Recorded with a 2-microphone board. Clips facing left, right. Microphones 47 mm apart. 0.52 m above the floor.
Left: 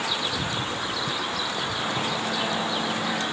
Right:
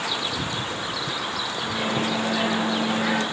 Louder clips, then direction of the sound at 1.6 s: Right 5 dB; 45° right (ahead or behind).